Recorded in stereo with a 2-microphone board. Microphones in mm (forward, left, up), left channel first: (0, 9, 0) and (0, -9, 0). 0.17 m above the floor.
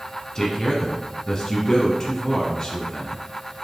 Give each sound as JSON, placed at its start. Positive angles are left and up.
{"t": 0.3, "sound": "a man speaking", "side_deg": 35, "distance_m": 1.4}